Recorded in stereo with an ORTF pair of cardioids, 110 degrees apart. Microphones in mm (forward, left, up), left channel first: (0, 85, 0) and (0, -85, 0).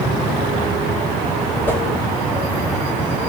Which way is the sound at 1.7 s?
10° left.